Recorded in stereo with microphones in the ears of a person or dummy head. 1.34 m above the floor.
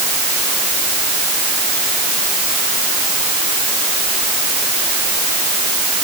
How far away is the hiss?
No hiss in this recording.